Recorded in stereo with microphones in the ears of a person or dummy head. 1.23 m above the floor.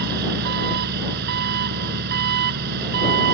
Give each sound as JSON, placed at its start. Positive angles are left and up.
{"t": 0.0, "sound": "an engine running", "side_deg": -55}